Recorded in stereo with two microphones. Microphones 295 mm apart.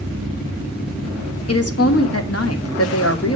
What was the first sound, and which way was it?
A woman speaking, 55° left (ahead or behind).